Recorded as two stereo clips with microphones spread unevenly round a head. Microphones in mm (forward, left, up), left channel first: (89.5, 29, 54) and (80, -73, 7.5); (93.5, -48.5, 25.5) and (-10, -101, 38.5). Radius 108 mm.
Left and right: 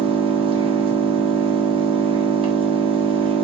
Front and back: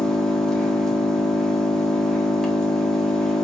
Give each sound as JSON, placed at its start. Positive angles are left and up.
{"t": 0.0, "sound": "an engine running", "azimuth_deg": -60, "distance_m": 1.4}